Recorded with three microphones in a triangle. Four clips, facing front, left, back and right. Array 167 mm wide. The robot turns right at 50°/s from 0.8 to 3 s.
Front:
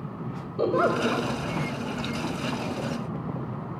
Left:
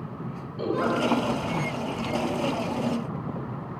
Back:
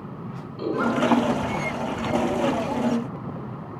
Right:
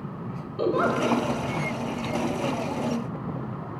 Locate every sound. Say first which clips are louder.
0.6 s a giggle: right 2 dB, even; 25° right, 4 m; by 1.3 s straight ahead, 4 m